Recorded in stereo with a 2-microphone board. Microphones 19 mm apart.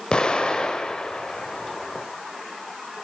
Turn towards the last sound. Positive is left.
turn(degrees=50)  # may be behind; listen again after turning